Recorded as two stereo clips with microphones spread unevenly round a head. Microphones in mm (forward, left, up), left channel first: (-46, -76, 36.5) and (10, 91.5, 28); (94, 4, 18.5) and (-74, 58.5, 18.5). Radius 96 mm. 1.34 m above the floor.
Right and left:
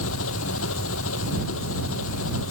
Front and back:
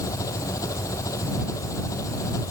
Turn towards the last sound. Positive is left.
turn(degrees=-95)